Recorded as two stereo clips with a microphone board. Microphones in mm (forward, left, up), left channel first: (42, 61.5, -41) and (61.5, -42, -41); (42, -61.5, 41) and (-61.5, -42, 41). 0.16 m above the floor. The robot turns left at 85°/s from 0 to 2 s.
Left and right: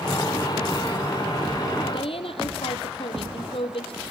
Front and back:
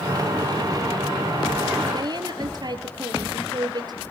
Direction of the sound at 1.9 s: 130° left.